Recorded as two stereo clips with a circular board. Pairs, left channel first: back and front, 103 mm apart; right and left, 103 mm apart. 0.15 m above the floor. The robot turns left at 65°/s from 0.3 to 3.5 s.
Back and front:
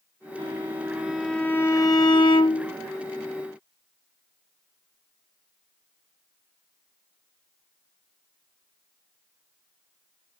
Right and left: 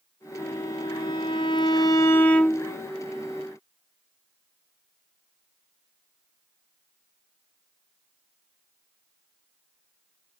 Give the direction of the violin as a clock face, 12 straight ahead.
1 o'clock.